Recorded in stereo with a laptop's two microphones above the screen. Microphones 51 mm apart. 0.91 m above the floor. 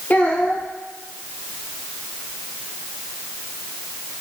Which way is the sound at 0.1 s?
35° left (ahead or behind).